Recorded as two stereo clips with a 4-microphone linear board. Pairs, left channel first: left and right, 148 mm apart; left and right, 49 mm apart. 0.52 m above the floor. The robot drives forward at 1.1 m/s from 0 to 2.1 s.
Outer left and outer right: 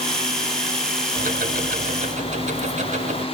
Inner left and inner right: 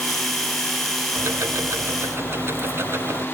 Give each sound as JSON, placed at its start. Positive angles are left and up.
{"t": 1.2, "sound": "ticking", "side_deg": -65, "distance_m": 1.0}